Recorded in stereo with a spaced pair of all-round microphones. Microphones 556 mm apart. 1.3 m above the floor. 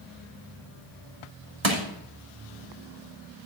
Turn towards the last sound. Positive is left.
turn(degrees=-50)  # may be behind; listen again after turning